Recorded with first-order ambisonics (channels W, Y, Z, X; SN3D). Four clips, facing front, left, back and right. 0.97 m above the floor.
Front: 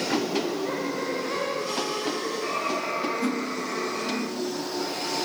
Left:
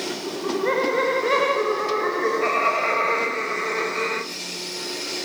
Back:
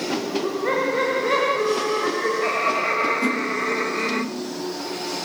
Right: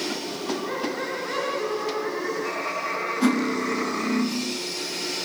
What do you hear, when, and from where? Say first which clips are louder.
0.3 s laughter: left 5 dB, back 4 dB; 130° left, 3.5 m; by 4.2 s 115° left, 6 m
3.2 s cutlery clinking: right 2 dB, back 5 dB; 100° right, 0.8 m